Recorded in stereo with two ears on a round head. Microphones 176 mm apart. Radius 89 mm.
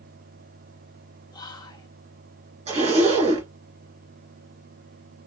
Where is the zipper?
35° right (ahead or behind), 2.5 m.